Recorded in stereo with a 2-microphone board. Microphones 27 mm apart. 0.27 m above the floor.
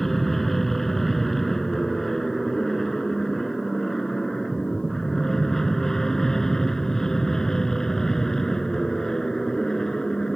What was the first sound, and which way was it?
An aircraft, 5° left (ahead or behind).